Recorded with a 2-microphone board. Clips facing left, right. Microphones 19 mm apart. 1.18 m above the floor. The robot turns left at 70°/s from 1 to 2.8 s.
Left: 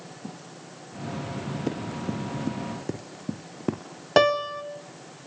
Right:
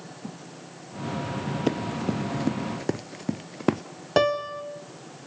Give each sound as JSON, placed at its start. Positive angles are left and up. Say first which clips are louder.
{"t": 1.7, "sound": "running footsteps", "louder": "right 5 dB", "side_deg": -35, "distance_m": 1.5}
{"t": 4.2, "sound": "a piano", "louder": "left 2 dB", "side_deg": 15, "distance_m": 1.8}